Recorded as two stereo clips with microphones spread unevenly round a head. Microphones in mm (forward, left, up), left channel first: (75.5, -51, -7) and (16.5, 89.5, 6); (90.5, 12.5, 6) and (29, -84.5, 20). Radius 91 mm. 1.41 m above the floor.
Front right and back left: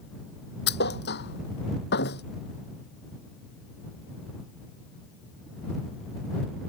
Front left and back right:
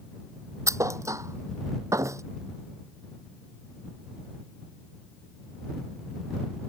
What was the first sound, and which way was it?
A thud, 60° right.